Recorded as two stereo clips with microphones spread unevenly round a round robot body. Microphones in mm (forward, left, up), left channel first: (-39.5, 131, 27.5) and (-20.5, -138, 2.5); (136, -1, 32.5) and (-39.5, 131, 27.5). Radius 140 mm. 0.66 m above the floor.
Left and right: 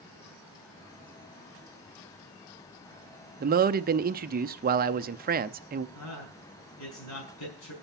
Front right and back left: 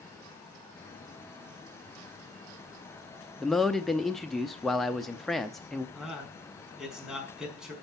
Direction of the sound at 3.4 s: 125° right.